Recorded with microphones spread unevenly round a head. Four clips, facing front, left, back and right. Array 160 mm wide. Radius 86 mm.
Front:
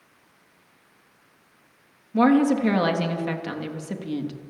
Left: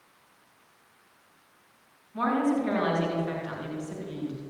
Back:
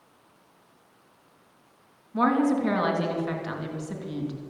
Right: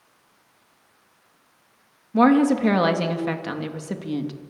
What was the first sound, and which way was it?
A woman speaking, 65° right.